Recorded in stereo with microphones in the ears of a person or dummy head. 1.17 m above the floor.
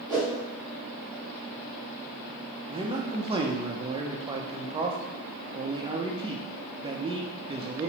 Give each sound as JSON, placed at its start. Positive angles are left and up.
{"t": 0.1, "sound": "a whoosh", "side_deg": -10, "distance_m": 1.1}
{"t": 2.7, "sound": "a man speaking", "side_deg": -20, "distance_m": 0.5}